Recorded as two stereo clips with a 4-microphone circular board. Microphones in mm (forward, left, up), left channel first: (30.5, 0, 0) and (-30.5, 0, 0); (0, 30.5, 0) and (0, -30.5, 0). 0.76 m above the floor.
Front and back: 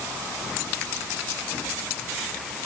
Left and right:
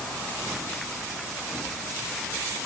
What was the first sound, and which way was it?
Only background noise.